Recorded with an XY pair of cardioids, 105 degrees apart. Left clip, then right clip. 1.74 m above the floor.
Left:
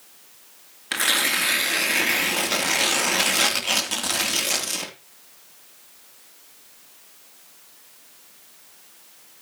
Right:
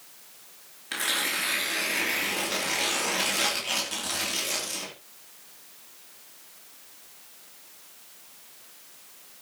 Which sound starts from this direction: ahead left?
Tearing paper, at 0.9 s.